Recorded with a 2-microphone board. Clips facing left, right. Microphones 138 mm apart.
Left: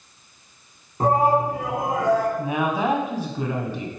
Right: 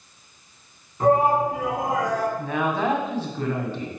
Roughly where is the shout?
Left.